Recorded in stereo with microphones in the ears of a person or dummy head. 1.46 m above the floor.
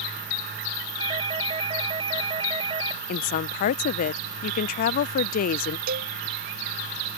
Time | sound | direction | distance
1.0 | a doorbell | 30° right (ahead or behind) | ?
3.1 | a woman speaking | 50° left (ahead or behind) | ?
5.9 | a cowbell | 55° right (ahead or behind) | ?